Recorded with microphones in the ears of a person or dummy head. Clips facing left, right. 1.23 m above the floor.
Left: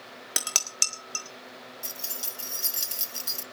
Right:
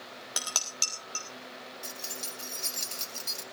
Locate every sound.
0.4 s dishes clattering: 30° left (ahead or behind), 1.6 m
1.8 s keys jangling: 10° left (ahead or behind), 0.5 m